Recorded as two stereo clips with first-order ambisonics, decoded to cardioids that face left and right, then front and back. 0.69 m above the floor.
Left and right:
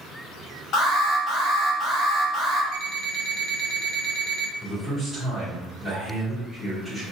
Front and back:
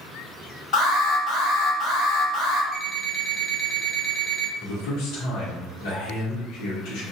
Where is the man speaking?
5° right, 1.2 m.